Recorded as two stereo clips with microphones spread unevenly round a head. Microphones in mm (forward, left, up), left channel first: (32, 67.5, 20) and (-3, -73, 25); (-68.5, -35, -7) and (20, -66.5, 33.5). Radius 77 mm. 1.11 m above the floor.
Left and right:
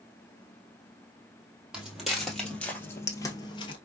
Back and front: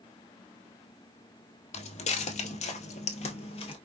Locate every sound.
1.7 s footsteps: 175° left, 1.8 m; by 3.8 s 110° left, 1.2 m